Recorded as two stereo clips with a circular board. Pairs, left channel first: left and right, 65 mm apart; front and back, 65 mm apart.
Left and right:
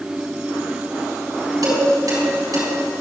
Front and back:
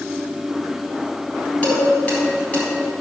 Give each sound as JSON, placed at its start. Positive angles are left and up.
{"t": 1.6, "sound": "dishes clattering", "azimuth_deg": -70, "distance_m": 4.5}